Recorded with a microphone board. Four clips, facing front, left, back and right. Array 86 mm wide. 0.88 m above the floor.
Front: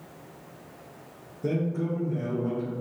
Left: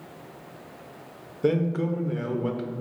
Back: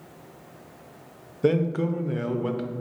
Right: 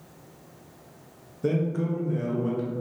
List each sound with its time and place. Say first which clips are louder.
1.4 s a man speaking: left 2 dB, back 6 dB; 155° left, 0.6 m